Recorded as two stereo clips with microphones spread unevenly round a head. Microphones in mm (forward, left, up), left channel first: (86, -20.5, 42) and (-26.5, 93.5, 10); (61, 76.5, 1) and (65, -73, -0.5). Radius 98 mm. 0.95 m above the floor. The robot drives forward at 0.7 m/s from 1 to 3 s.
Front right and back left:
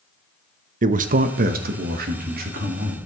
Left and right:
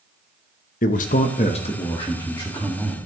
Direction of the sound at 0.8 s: 130° left.